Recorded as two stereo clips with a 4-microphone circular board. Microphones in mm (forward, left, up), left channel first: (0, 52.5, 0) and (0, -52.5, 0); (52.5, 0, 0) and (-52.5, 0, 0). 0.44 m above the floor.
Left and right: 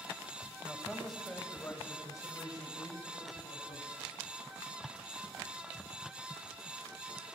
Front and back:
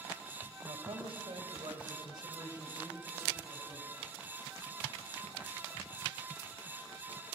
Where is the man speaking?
170° right, 2.5 m; by 4.0 s 110° left, 4 m.